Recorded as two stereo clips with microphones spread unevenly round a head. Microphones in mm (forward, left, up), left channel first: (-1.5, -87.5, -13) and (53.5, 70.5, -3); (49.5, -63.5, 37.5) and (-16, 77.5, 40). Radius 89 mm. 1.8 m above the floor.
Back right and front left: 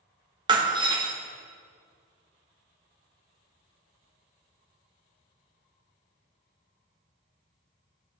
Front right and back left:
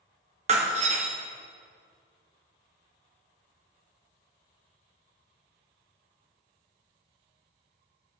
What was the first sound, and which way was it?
Breaking glass, 105° left.